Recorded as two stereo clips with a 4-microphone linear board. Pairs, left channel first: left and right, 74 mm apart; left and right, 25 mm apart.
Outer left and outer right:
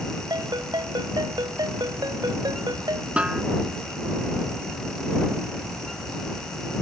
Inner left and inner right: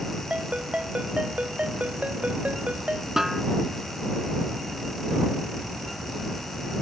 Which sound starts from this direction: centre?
A snare drum, at 3.2 s.